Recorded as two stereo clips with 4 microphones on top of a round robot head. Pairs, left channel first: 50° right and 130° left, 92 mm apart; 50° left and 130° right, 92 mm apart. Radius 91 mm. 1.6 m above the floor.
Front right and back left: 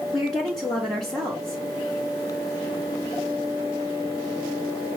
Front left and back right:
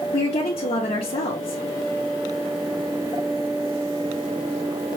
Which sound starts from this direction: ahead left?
A woman speaking, at 0.1 s.